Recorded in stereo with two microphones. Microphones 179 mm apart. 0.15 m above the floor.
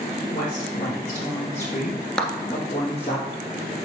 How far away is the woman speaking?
About 5 m.